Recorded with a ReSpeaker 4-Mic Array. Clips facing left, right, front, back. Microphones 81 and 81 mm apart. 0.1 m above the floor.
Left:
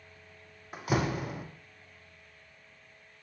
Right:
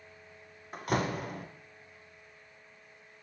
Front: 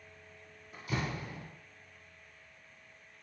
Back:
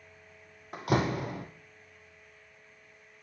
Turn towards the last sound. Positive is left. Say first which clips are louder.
# left 1 dB, back 9 dB
turn(degrees=175)